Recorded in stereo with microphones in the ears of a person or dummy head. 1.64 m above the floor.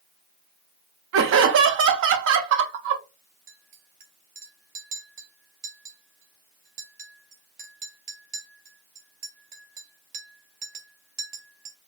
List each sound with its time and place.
1.1 s laughter: 65° right (ahead or behind), 0.6 m
3.5 s a clink: 40° right (ahead or behind), 0.7 m